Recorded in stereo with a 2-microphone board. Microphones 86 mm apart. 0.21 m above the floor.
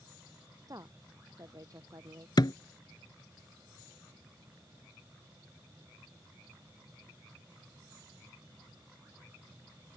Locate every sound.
0.7 s a woman speaking: 45° right (ahead or behind)
2.4 s a thud: 55° left (ahead or behind)